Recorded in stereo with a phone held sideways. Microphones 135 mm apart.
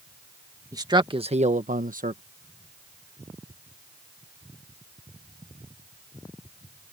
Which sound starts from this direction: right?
A man speaking, at 0.7 s.